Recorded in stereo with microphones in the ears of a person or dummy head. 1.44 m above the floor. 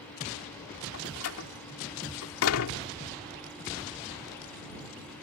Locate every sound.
0.9 s a door slam: 85° left